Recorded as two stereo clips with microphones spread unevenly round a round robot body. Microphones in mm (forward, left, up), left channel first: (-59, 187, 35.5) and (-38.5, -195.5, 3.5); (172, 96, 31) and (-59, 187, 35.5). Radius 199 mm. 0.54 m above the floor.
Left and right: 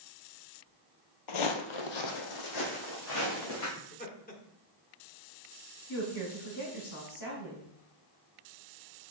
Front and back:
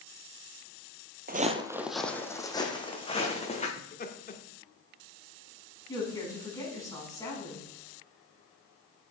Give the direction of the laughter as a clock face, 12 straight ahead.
11 o'clock.